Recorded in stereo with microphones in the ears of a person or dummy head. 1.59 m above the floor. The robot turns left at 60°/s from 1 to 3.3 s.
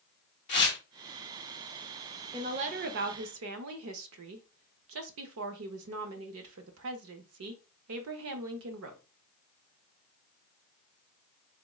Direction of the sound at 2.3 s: 20° right.